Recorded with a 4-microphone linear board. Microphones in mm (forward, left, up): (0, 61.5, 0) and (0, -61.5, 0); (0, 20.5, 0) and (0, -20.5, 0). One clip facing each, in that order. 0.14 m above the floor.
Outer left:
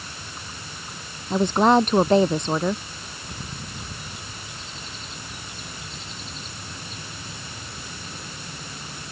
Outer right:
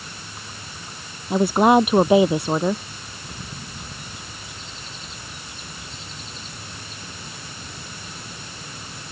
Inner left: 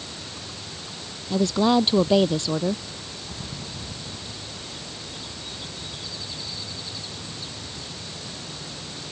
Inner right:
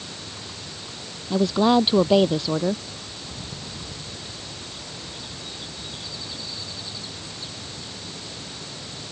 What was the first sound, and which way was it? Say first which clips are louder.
A woman speaking: outer right 2 dB, inner right 1 dB; 10° right (ahead or behind).